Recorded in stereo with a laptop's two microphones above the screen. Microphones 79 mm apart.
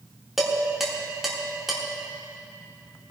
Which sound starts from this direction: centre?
Dishes clattering, at 0.4 s.